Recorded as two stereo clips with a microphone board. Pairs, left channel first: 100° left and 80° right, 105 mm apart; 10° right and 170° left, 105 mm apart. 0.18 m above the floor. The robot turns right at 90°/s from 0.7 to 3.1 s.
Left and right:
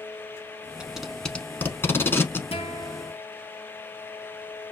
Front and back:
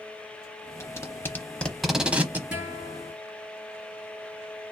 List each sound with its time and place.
0.8 s tape being pulled: 10° right, 0.7 m; by 2.4 s 130° left, 0.7 m
2.5 s a guitar: 90° left, 1.3 m; by 3.1 s 145° left, 1.3 m